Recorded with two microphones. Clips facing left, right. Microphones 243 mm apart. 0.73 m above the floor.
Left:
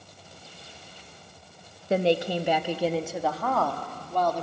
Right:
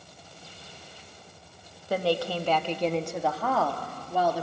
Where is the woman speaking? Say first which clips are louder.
Left 3 dB; 25° left (ahead or behind), 0.9 m; by 4.4 s 10° right (ahead or behind), 2 m.